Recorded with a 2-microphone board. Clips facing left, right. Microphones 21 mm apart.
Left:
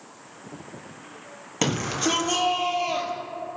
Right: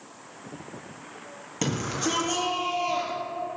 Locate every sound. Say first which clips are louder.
1.6 s a shout: left 3 dB; 30° left (ahead or behind), 4 m; by 3.1 s 15° left (ahead or behind), 4 m